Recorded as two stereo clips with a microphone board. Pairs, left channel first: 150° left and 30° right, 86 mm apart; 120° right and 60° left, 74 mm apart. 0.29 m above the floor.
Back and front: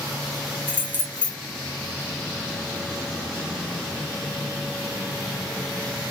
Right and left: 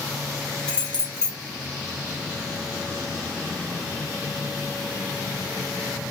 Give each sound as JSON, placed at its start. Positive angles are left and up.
{"t": 0.7, "sound": "keys jangling", "azimuth_deg": -60, "distance_m": 0.7}